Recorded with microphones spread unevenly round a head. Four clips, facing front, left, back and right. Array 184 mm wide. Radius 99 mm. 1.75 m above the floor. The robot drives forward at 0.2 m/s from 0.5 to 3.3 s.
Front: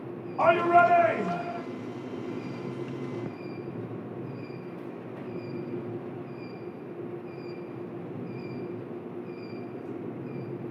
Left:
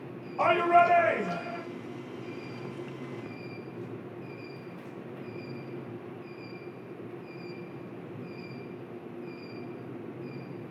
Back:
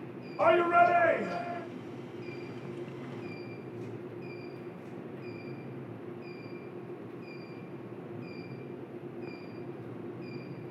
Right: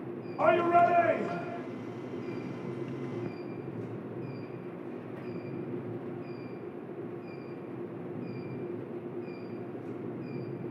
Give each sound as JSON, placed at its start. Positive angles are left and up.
{"t": 0.4, "sound": "a shout", "azimuth_deg": 30, "distance_m": 1.9}